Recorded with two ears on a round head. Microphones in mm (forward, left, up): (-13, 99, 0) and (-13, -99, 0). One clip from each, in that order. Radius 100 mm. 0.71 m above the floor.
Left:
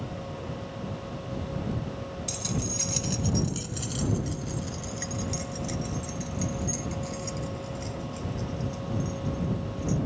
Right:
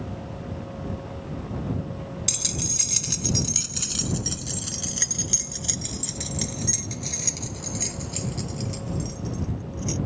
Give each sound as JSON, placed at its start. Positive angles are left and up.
{"t": 2.3, "sound": "keys jangling", "side_deg": -45}